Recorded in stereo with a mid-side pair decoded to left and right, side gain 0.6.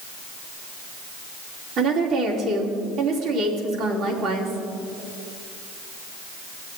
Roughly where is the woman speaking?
Ahead right.